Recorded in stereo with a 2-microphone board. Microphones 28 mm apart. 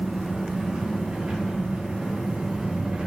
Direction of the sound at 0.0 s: 45° right (ahead or behind).